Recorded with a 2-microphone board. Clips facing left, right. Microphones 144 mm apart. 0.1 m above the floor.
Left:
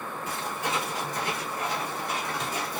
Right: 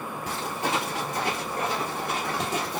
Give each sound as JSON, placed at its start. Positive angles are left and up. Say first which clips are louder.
{"t": 0.3, "sound": "footsteps", "louder": "right 3 dB", "side_deg": -90, "distance_m": 4.0}